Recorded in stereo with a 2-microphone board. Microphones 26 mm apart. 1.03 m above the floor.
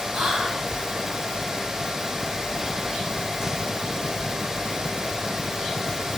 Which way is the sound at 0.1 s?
85° right.